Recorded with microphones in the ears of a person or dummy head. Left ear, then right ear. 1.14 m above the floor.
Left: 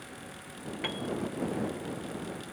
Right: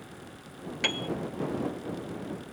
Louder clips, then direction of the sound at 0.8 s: Right 6 dB; 20° right (ahead or behind).